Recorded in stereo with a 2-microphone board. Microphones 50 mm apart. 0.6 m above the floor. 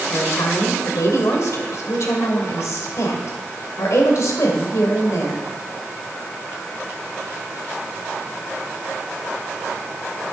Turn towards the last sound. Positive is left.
turn(degrees=70)  # may be behind; listen again after turning